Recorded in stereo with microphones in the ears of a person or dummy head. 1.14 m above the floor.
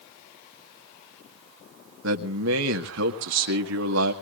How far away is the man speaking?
About 1.7 m.